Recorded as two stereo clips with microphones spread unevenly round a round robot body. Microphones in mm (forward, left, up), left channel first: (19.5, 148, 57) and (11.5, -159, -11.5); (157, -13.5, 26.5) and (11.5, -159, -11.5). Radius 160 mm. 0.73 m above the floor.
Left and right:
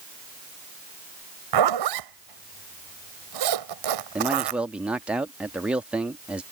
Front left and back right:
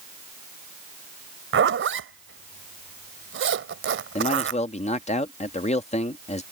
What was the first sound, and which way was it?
A zipper, 110° right.